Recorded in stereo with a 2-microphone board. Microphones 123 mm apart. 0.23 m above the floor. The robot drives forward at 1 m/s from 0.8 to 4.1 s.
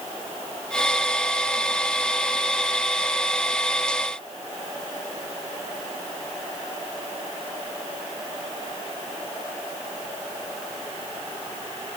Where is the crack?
No crack in this recording.